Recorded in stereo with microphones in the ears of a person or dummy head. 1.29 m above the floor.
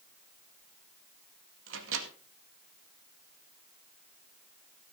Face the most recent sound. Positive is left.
turn(degrees=-75)  # may be behind; listen again after turning